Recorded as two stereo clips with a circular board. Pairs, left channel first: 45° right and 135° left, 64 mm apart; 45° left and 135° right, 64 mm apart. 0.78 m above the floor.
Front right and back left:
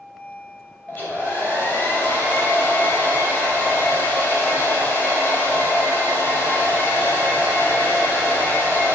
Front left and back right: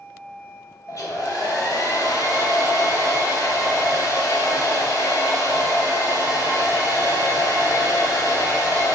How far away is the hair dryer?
About 2.5 m.